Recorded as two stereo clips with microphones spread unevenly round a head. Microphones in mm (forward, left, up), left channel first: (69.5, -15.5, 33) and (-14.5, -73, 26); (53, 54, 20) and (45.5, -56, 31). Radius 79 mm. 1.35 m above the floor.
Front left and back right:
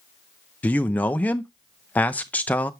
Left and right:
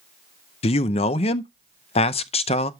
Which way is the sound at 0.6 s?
115° left.